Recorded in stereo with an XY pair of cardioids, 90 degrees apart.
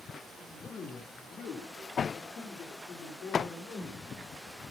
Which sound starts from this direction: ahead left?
A man speaking, at 0.4 s.